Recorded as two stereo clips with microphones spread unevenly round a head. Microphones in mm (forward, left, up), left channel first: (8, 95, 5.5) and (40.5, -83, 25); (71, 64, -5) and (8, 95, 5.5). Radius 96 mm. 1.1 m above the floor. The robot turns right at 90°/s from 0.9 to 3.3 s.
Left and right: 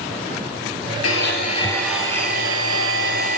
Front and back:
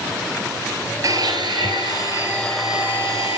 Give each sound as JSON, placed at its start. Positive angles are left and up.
{"t": 1.0, "sound": "a blender", "azimuth_deg": 115, "distance_m": 3.0}